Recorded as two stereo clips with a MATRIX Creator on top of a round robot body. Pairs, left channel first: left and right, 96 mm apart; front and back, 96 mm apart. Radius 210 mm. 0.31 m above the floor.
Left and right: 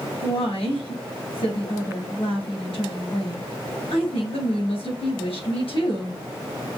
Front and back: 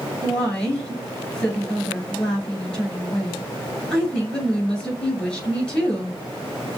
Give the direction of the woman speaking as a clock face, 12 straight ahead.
9 o'clock.